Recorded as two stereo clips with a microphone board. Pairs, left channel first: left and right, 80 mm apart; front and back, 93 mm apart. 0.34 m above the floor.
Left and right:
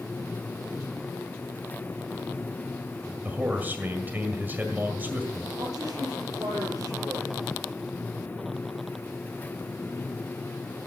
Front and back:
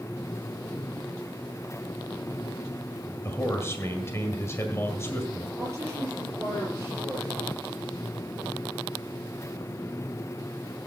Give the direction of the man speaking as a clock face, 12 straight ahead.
1 o'clock.